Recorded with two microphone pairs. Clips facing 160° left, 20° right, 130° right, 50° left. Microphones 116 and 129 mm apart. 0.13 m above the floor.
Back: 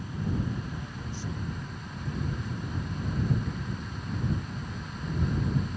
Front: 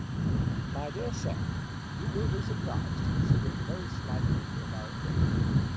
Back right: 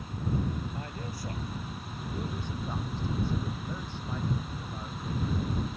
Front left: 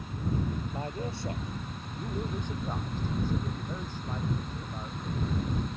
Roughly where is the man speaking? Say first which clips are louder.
Front 5 dB, front left 4 dB; ahead.